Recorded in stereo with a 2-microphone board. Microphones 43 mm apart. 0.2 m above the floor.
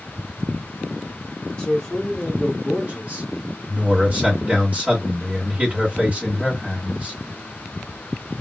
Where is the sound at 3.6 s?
35° right (ahead or behind), 1.8 m.